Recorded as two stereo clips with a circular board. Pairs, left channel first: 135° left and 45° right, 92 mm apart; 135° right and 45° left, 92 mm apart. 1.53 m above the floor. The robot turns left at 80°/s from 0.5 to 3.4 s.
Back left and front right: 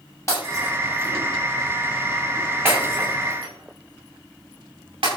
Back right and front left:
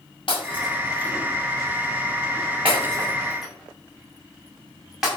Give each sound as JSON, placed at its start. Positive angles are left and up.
{"t": 0.3, "sound": "breaking glass", "azimuth_deg": -165, "distance_m": 6.5}